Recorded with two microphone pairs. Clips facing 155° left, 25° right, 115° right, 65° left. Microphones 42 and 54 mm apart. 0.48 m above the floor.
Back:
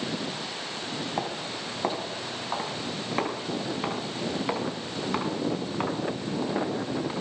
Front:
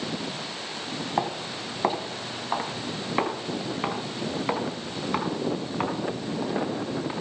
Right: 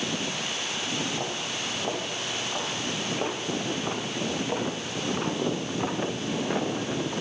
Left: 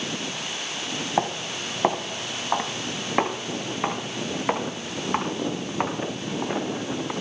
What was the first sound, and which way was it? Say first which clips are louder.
Footsteps: front 3 dB, left 5 dB; 45° left.